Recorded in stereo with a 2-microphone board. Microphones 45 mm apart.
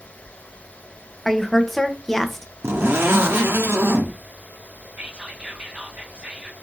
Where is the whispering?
30° right (ahead or behind), 1.5 m.